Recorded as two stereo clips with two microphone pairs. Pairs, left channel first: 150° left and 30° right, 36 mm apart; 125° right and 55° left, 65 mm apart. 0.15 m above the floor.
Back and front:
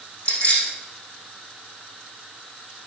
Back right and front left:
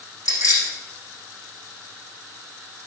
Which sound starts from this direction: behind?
Keys jangling, at 0.2 s.